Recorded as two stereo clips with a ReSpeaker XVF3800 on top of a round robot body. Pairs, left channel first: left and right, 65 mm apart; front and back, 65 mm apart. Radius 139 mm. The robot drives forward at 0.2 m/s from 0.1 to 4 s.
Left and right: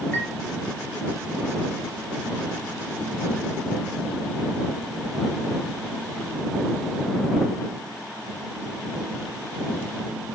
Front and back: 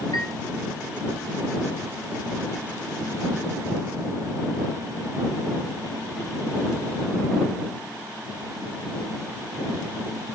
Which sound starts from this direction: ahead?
A chime, at 0.1 s.